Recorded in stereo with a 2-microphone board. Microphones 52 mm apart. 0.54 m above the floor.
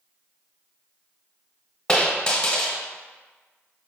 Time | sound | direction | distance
1.9 | a dropped coin | 15° left (ahead or behind) | 0.9 m